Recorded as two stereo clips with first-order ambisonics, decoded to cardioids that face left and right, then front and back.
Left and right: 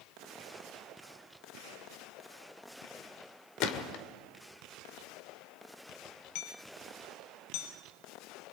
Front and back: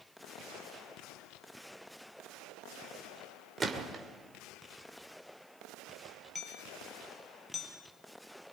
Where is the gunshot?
110° left, 1.9 m.